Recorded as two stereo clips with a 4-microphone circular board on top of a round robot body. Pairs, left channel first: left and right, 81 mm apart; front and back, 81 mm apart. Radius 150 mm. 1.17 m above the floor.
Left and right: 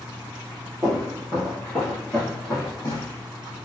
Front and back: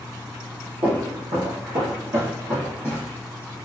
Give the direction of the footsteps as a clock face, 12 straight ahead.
5 o'clock.